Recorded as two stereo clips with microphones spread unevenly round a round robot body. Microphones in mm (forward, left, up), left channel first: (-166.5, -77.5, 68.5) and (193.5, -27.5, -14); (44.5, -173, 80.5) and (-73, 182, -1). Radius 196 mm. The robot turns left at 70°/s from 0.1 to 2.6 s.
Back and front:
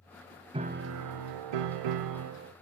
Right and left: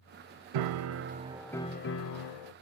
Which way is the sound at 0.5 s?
85° left.